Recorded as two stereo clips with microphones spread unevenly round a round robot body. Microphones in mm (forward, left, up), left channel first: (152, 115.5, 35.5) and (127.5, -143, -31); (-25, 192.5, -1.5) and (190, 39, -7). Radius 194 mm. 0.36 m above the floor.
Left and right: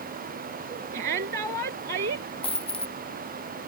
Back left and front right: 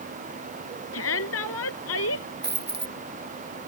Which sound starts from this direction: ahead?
A dropped coin, at 2.4 s.